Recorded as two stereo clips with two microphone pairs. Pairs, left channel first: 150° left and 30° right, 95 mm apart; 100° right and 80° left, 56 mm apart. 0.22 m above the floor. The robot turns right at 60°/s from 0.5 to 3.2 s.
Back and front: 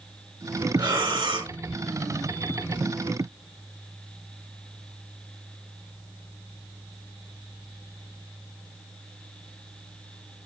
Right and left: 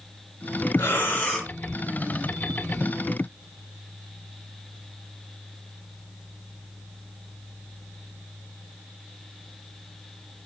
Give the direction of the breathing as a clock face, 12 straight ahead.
2 o'clock.